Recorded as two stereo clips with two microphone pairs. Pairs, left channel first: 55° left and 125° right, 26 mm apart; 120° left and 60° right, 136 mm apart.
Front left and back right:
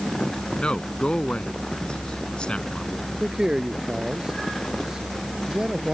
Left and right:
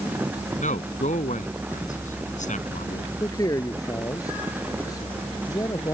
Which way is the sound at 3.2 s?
Straight behind.